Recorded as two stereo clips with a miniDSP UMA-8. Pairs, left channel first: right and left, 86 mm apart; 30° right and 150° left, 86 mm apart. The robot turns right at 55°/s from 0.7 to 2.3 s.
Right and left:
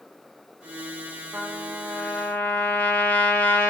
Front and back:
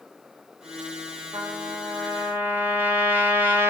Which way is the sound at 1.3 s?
155° left.